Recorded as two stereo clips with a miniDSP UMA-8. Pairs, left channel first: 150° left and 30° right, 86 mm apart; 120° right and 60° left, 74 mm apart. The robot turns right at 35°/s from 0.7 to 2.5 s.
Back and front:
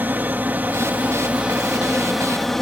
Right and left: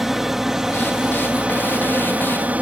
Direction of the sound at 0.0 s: 20° right.